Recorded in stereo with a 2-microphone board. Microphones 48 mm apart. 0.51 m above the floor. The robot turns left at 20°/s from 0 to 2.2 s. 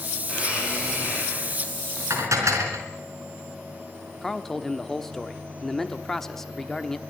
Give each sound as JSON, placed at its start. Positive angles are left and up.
{"t": 0.2, "sound": "a blender", "azimuth_deg": -20, "distance_m": 9.0}
{"t": 2.1, "sound": "dishes clattering", "side_deg": -75, "distance_m": 4.5}
{"t": 4.2, "sound": "a man speaking", "side_deg": 5, "distance_m": 1.2}